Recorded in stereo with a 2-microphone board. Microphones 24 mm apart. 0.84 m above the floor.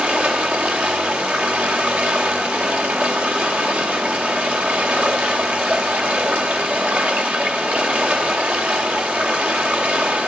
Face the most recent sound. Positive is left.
turn(degrees=-80)